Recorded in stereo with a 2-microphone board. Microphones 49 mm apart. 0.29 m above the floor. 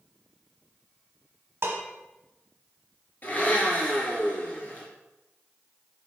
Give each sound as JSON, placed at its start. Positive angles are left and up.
{"t": 1.6, "sound": "dishes clattering", "side_deg": -55, "distance_m": 1.3}
{"t": 3.2, "sound": "a blender", "side_deg": 35, "distance_m": 2.5}